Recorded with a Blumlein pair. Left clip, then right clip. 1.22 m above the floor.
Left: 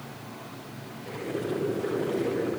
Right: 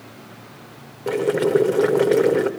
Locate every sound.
1.1 s boiling: 40° right, 3 m